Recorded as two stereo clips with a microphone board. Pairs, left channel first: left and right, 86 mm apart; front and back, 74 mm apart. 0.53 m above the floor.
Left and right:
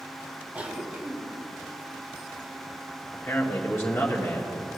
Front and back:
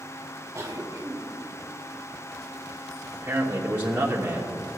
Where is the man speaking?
130° left, 1.1 m.